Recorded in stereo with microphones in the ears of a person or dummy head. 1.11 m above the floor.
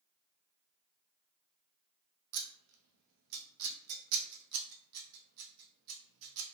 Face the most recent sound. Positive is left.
turn(degrees=-80)